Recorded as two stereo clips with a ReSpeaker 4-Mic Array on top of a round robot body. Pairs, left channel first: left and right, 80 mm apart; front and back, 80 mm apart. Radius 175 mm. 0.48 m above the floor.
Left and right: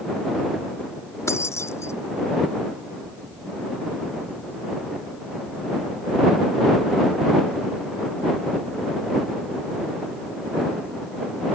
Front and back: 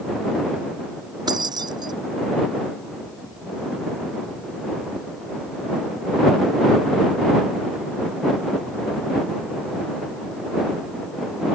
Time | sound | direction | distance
1.3 | keys jangling | 145° left | ?